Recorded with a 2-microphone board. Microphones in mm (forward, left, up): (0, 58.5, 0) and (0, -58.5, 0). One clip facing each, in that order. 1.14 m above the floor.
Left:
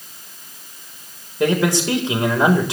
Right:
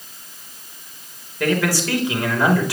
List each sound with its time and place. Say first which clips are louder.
1.4 s a man speaking: left 2 dB; 20° left (ahead or behind), 3.5 m